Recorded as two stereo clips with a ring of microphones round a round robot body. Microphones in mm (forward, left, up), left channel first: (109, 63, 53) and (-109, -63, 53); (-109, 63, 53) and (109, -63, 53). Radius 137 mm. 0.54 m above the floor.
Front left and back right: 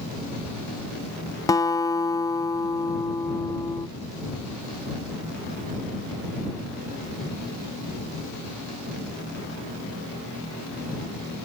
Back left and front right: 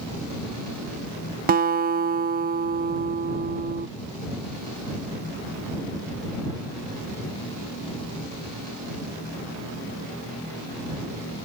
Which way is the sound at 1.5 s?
35° right.